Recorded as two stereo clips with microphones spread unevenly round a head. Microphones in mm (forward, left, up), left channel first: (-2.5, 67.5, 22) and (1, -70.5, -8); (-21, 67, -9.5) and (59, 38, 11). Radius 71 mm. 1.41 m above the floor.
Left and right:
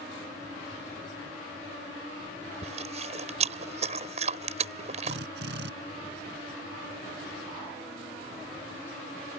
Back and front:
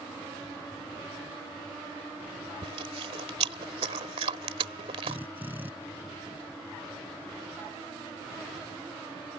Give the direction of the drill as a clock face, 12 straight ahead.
3 o'clock.